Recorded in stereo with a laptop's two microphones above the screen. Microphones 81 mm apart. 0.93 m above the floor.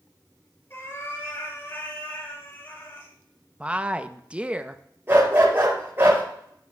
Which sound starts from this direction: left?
A cat meowing, at 0.7 s.